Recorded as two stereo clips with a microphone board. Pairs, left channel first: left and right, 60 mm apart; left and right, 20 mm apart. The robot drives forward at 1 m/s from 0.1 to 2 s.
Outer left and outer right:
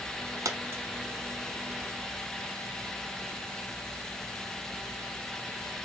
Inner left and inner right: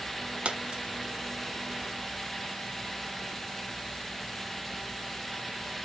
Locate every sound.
0.5 s a dropped coin: 70° right (ahead or behind), 0.6 m; by 0.8 s 45° right (ahead or behind), 0.8 m